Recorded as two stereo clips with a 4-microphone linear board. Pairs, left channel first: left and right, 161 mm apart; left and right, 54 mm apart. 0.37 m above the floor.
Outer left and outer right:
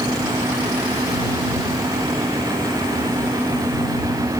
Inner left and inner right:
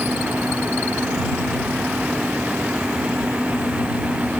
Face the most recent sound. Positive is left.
No sound to turn to.